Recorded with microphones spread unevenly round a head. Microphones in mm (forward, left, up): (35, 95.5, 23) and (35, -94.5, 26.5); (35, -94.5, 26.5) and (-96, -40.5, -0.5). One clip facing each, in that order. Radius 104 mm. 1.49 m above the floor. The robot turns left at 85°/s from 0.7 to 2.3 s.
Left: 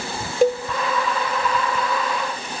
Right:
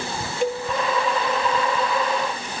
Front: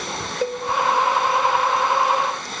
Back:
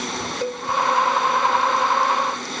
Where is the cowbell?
50° left, 0.7 m.